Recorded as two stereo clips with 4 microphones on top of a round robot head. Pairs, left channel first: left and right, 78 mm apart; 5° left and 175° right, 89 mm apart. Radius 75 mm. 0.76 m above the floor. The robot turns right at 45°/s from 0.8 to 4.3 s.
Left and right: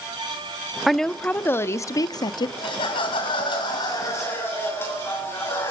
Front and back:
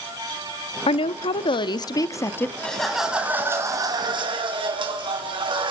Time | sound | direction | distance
0.9 | a woman speaking | straight ahead | 1.1 m
2.6 | laughter | 80° left | 7.5 m